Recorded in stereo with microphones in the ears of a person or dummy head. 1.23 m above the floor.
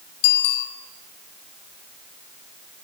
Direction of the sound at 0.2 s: 60° left (ahead or behind).